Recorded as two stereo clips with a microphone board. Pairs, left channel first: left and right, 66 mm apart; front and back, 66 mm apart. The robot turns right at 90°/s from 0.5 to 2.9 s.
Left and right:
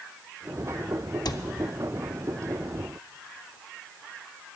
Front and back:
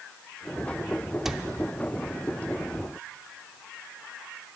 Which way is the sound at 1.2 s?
95° left.